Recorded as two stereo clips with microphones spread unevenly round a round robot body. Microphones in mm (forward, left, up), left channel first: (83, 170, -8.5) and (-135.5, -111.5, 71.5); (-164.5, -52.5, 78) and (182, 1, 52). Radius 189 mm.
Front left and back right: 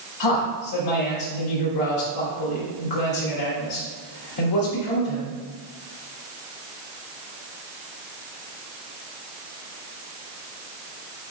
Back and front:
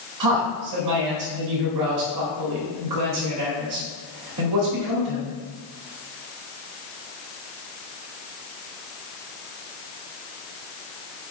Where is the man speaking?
35° left, 2.5 m.